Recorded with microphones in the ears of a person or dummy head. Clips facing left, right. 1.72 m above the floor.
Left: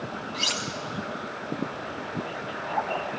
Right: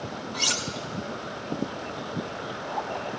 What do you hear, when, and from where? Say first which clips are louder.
0.3 s cutlery clinking: even; 20° left (ahead or behind), 1.1 m